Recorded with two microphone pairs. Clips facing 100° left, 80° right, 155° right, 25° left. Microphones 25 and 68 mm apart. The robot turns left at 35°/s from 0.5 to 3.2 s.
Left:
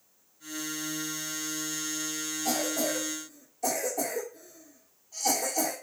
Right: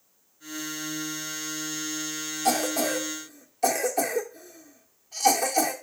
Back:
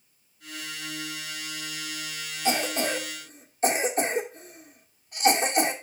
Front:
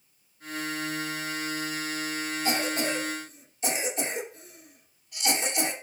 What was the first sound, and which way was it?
A cough, 90° right.